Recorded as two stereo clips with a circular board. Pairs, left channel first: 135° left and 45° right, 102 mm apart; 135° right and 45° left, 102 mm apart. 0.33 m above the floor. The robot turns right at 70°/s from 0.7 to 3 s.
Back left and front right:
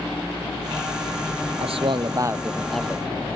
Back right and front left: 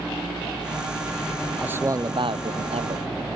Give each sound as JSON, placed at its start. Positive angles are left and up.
{"t": 1.6, "sound": "a man speaking", "azimuth_deg": -30}